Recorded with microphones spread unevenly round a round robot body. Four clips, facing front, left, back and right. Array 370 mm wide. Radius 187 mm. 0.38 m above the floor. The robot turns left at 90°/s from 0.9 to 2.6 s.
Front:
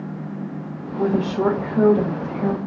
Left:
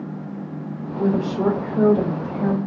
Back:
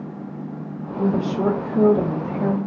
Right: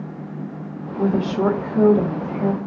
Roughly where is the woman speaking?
Ahead right.